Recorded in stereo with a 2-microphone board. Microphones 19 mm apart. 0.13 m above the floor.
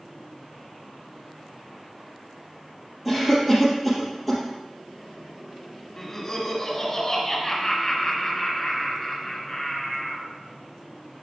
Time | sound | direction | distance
3.0 | a cough | 5° right (ahead or behind) | 3.5 m
6.0 | laughter | 25° left (ahead or behind) | 1.6 m